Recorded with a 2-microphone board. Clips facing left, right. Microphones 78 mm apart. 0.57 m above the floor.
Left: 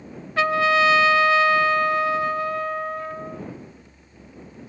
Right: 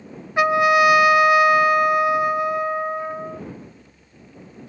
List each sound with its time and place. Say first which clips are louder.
0.4 s a trumpet: right 3 dB; 20° right (ahead or behind)